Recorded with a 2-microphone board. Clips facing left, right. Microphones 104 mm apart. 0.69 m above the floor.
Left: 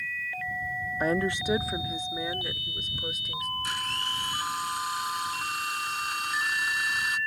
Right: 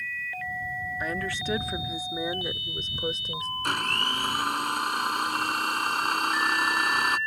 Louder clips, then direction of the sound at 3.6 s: Right 5 dB; 60° right (ahead or behind).